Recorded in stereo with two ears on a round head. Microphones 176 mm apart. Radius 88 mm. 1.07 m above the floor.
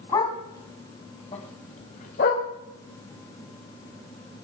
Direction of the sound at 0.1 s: 20° left (ahead or behind).